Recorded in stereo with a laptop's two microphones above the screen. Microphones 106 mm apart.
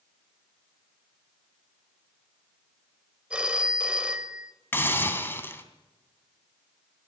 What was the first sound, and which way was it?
A phone ringing, 10° right (ahead or behind).